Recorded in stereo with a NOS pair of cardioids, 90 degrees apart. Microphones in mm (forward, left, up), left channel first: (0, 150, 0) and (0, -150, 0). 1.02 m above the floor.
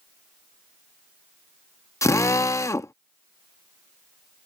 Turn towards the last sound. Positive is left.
turn(degrees=10)